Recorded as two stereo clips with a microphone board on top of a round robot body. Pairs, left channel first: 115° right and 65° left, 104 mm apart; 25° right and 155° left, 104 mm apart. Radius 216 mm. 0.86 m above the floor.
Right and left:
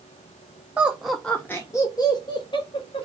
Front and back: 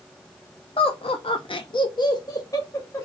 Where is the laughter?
5° right, 0.8 m; by 3.0 s 90° right, 1.2 m.